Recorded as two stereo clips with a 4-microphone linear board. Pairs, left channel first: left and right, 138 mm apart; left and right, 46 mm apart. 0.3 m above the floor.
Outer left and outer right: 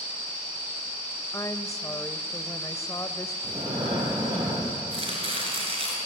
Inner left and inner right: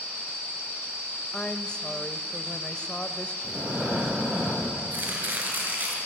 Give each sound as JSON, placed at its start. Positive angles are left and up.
{"t": 1.3, "sound": "a woman speaking", "side_deg": 25, "distance_m": 1.1}
{"t": 3.4, "sound": "breathing", "side_deg": -35, "distance_m": 6.5}
{"t": 4.9, "sound": "chopping", "side_deg": -45, "distance_m": 6.0}